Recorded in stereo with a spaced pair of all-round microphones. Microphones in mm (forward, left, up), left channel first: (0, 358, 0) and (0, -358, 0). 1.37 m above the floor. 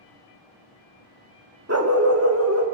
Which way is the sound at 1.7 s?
20° right (ahead or behind).